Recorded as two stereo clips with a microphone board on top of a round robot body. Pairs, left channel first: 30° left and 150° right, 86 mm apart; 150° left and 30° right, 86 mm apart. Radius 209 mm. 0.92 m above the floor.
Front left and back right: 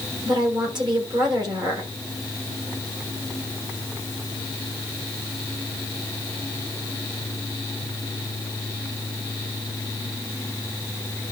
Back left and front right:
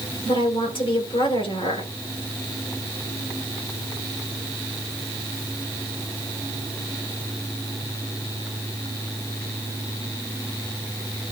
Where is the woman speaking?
175° left, 5.5 m.